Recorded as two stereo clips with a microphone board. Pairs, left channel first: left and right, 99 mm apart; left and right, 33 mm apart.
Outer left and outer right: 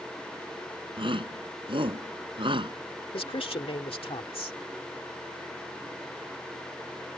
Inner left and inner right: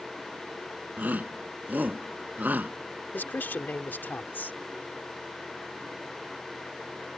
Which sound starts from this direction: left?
A man speaking, at 3.1 s.